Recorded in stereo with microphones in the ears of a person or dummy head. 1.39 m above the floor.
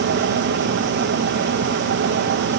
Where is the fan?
60° right (ahead or behind), 1.5 m.